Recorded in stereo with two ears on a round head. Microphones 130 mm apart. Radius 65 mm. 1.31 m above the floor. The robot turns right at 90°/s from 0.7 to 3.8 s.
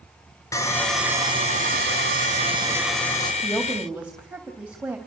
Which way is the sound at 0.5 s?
155° left.